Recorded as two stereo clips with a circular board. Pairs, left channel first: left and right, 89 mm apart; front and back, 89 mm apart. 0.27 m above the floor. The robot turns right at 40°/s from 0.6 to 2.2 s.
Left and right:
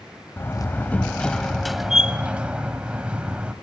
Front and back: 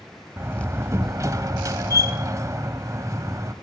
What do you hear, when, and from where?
0.4 s a door slam: 135° left, 1.1 m; by 3.5 s 160° right, 1.1 m